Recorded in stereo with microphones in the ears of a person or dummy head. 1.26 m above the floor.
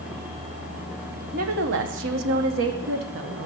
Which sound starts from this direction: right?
A woman speaking, at 1.3 s.